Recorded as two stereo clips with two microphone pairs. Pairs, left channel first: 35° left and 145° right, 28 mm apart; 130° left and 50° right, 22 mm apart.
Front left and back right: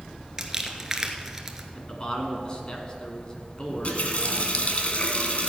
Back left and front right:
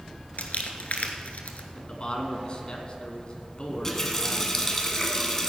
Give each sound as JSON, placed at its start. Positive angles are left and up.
{"t": 0.4, "sound": "crumpling", "azimuth_deg": 140, "distance_m": 1.1}
{"t": 1.8, "sound": "a man speaking", "azimuth_deg": 90, "distance_m": 1.8}
{"t": 3.7, "sound": "a running tap", "azimuth_deg": 60, "distance_m": 1.4}